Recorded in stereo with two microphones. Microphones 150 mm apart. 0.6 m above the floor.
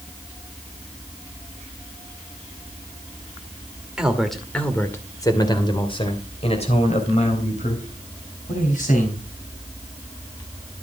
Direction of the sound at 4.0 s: 5° right (ahead or behind).